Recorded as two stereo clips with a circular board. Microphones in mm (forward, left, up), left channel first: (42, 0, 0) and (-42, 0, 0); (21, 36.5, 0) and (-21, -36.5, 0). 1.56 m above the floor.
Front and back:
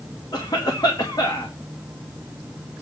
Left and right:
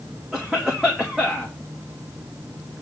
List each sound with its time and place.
0.3 s a cough: 35° right, 2.5 m